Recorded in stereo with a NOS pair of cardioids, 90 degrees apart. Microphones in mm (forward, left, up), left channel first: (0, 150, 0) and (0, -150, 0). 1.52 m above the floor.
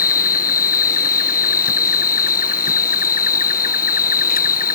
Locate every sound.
0.0 s an insect: 30° left